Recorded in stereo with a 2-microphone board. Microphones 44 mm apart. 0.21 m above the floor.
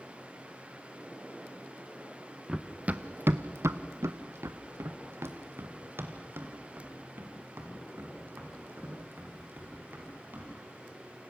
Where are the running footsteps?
15° right (ahead or behind), 1.3 m; by 10.5 s 45° right (ahead or behind), 7.5 m.